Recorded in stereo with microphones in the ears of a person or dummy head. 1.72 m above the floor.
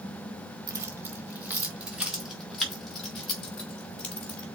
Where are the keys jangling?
20° right (ahead or behind), 1.6 m; by 4.5 s 5° left (ahead or behind), 3.5 m.